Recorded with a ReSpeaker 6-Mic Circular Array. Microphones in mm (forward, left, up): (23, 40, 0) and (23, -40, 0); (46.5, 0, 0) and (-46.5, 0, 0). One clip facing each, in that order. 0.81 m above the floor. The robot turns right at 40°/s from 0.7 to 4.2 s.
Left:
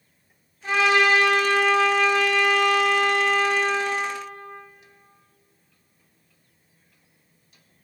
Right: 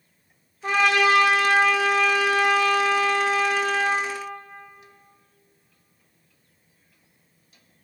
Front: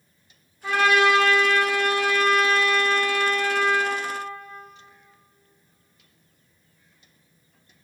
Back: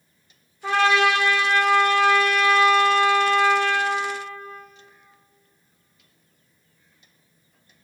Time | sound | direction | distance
0.6 | a trumpet | 125° right | 1.7 m